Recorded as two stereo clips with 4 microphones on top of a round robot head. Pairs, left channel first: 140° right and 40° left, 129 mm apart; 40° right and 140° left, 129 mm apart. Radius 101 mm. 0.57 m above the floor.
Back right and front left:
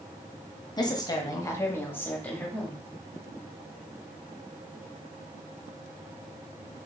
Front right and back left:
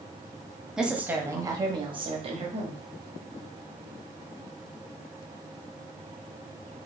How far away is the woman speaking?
About 1.0 m.